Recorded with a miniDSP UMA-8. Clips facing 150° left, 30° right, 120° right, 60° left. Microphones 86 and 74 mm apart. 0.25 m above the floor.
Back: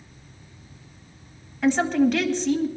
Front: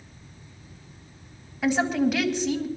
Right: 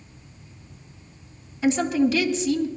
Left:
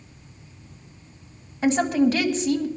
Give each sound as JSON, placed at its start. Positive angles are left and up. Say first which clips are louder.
{"t": 1.6, "sound": "a woman speaking", "louder": "back 3 dB, left 1 dB", "azimuth_deg": 50, "distance_m": 1.6}